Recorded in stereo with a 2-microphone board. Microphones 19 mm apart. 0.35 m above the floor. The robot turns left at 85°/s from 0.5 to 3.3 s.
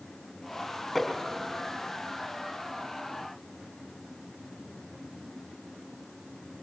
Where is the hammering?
10° left (ahead or behind), 6 m; by 1.1 s 25° left (ahead or behind), 6 m.